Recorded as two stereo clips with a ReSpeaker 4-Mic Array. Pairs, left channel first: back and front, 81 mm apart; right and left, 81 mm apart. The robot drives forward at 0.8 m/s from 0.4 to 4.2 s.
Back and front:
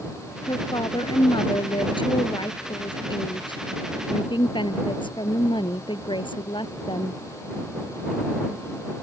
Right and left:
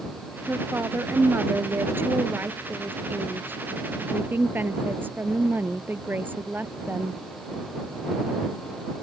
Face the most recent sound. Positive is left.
turn(degrees=160)